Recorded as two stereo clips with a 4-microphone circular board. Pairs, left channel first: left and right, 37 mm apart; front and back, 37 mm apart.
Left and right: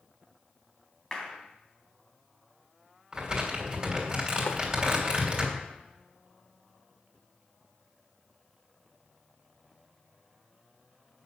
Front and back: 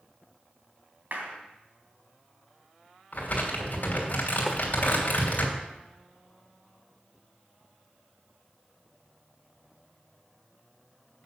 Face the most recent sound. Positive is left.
turn(degrees=90)